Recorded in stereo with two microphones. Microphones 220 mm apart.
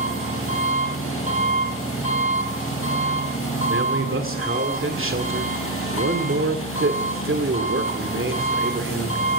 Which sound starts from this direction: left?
An engine running, at 0.0 s.